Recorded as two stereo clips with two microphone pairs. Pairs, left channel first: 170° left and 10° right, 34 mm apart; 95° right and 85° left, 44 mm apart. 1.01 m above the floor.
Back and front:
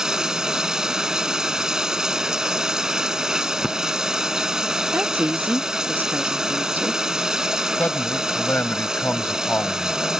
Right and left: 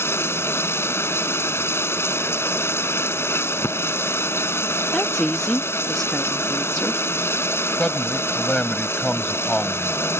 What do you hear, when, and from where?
0.0 s running water: 80° right
4.9 s a woman speaking: 15° right
7.8 s a man speaking: 165° right